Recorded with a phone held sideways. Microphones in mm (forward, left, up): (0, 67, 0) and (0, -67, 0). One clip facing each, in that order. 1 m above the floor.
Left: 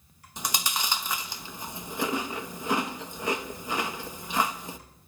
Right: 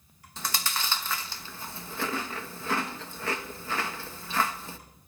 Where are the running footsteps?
I don't hear running footsteps.